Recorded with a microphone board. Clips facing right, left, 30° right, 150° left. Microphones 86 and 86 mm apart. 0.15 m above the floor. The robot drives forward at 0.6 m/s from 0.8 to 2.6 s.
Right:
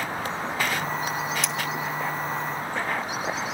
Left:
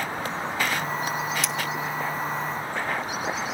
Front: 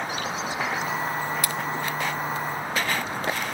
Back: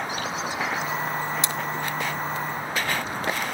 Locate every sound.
1.4 s cutlery clinking: straight behind, 0.7 m